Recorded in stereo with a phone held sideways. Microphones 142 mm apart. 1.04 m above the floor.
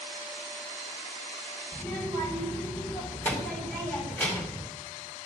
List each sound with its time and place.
1.7 s a child speaking: 10° left (ahead or behind), 5.5 m